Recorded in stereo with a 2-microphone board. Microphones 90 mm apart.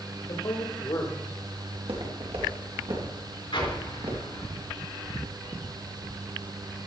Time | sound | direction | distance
0.3 | a man speaking | 55° left (ahead or behind) | 2.5 m
1.7 | footsteps | 75° right (ahead or behind) | 3.5 m
3.5 | an explosion | 60° left (ahead or behind) | 4 m